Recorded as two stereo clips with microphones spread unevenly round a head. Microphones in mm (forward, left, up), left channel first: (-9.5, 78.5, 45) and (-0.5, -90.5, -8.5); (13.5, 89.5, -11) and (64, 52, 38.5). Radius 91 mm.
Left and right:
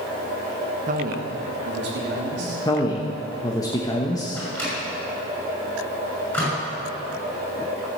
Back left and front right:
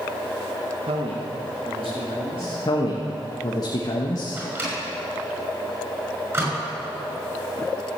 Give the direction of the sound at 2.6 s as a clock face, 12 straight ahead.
7 o'clock.